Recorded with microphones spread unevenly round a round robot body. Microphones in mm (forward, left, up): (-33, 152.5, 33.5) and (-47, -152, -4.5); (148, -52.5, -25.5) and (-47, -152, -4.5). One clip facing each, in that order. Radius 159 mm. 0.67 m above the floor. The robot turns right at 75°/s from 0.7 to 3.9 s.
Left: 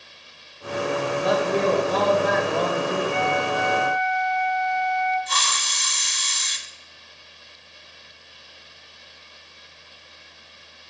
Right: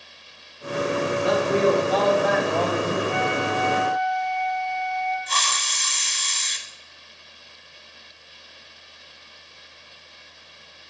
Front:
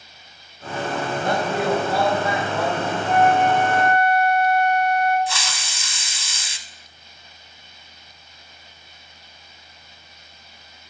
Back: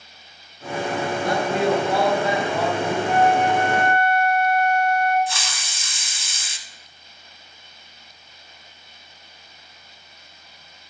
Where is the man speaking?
60° left, 2.5 m; by 3.0 s 165° right, 2.5 m.